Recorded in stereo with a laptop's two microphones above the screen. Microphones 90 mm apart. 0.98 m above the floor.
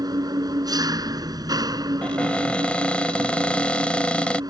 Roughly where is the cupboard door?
Centre.